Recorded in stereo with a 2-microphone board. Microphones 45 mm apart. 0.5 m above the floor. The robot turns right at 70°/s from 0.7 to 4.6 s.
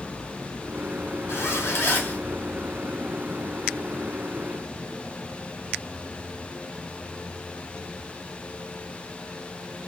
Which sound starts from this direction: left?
A zipper, at 1.3 s.